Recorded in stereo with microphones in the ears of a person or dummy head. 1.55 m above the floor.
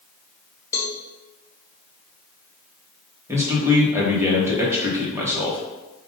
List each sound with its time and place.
0.7 s a cowbell: 15° left (ahead or behind), 0.7 m
3.3 s a man speaking: 20° right (ahead or behind), 1.3 m